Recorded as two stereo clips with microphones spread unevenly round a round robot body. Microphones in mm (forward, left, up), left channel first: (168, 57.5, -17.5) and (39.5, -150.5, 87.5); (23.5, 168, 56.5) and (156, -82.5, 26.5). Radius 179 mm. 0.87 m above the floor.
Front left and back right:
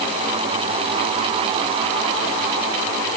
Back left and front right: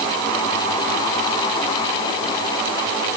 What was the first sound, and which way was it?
Only background noise.